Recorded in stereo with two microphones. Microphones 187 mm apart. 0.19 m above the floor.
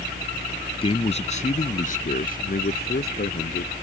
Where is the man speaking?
30° left (ahead or behind); by 3.7 s 60° left (ahead or behind).